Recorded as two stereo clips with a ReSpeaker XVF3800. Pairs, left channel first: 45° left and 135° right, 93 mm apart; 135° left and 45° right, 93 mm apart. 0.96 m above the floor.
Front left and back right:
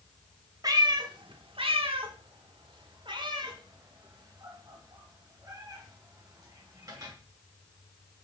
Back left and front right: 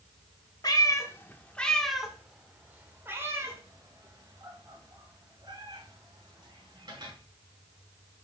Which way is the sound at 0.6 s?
Straight behind.